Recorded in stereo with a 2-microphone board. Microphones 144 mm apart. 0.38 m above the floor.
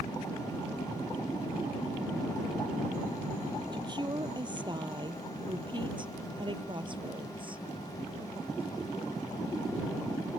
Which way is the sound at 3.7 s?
30° right (ahead or behind).